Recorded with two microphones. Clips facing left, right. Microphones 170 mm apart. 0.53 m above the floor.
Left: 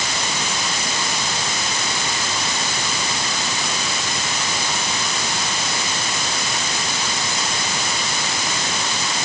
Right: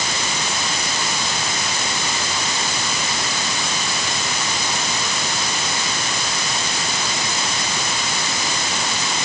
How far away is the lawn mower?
No lawn mower in this recording.